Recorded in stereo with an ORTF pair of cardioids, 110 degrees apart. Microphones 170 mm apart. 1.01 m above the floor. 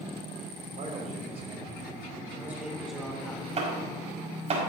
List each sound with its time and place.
0.8 s a man speaking: 50° right, 3 m; by 3.5 s 10° left, 3 m
3.6 s chopping: 40° right, 5 m